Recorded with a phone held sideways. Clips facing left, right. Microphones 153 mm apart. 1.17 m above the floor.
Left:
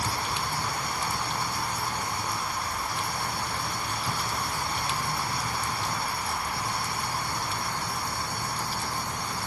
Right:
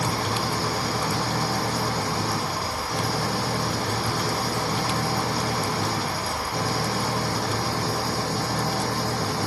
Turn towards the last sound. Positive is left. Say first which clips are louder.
# right 5 dB
turn(degrees=-85)